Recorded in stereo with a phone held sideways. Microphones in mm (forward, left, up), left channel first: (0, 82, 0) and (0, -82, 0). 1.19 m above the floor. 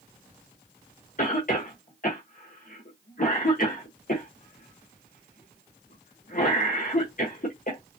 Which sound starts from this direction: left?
A cough, at 1.2 s.